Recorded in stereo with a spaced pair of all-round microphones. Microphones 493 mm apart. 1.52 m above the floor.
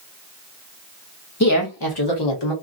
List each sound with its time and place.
1.4 s a woman speaking: 30° left (ahead or behind), 1.1 m; by 2.5 s 60° left (ahead or behind), 1.4 m